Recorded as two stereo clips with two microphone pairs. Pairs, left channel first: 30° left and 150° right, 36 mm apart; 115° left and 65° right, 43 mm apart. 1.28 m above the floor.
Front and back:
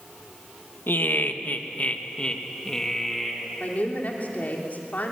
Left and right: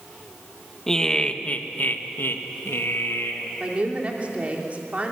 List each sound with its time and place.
0.9 s laughter: 35° left, 1.6 m; by 3.5 s 115° left, 2.5 m
3.6 s a woman speaking: 5° right, 3 m